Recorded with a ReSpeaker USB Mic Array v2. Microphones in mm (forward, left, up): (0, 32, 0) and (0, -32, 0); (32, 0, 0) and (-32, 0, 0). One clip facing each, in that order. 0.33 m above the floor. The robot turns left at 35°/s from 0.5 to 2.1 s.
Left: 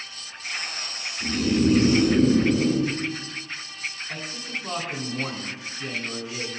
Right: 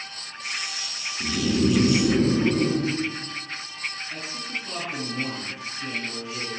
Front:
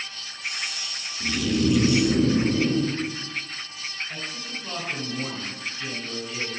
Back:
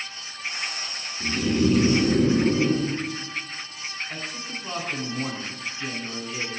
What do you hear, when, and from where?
1.2 s snoring: 105° right, 2.5 m; by 2.9 s 135° right, 2.5 m
4.1 s a man speaking: 110° left, 3.5 m